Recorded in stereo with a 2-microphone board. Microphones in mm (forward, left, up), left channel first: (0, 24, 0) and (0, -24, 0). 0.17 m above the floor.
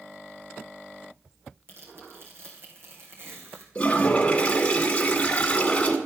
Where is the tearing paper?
55° right (ahead or behind), 2.5 m.